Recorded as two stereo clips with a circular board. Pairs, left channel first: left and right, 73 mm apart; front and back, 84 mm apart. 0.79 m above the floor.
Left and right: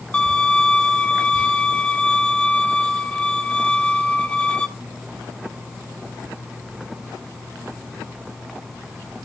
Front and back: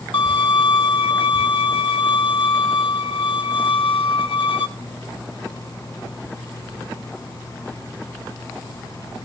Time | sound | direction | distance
0.1 | a violin | 15° left | 1.0 m